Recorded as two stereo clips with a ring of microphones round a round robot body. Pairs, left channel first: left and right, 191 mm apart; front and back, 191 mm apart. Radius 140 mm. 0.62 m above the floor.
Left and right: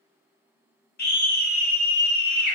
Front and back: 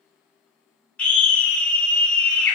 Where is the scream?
85° left, 1.2 m.